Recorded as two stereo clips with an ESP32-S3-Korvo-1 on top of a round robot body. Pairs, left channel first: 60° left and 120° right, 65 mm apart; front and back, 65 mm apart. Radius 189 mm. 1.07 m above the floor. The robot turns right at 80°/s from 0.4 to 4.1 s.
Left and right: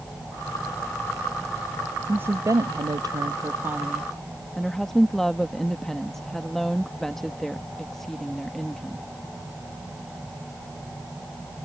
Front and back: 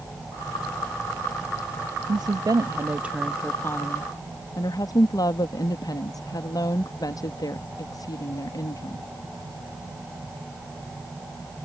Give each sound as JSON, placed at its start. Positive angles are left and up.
{"t": 2.1, "sound": "a woman speaking", "azimuth_deg": 175}